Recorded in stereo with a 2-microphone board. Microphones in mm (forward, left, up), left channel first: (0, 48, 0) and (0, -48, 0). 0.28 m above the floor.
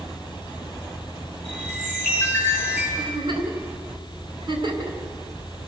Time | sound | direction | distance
1.4 | a chime | 20° left (ahead or behind) | 7 m
3.0 | a giggle | 60° right (ahead or behind) | 3.5 m